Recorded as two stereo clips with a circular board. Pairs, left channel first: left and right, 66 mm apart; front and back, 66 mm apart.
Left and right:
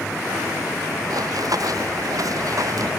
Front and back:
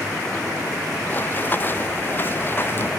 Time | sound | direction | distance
1.1 | running footsteps | 60° right | ?